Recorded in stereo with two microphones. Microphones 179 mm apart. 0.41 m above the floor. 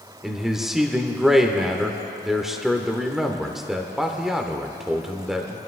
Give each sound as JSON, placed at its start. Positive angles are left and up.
{"t": 0.2, "sound": "a man speaking", "side_deg": 0, "distance_m": 0.9}